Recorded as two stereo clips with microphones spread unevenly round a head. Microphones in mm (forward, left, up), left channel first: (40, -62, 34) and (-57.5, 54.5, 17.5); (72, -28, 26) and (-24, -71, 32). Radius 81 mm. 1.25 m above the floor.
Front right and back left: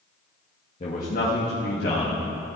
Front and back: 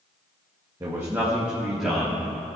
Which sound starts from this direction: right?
A man speaking, at 0.8 s.